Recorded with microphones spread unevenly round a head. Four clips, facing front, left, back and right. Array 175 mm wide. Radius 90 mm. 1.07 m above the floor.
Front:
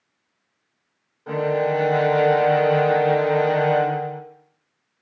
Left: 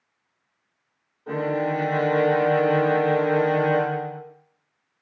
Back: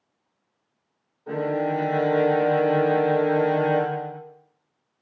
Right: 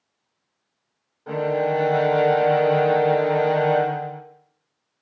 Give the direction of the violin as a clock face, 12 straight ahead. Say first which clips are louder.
Right 2 dB, front 3 dB; 2 o'clock.